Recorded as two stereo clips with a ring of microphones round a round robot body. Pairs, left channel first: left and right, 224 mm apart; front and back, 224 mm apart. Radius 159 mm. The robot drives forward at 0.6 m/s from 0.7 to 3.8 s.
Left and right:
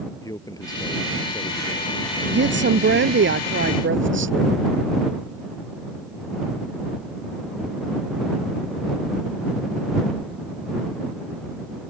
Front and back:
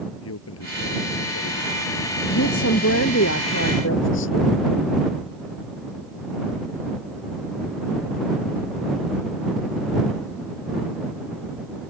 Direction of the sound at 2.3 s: 55° right.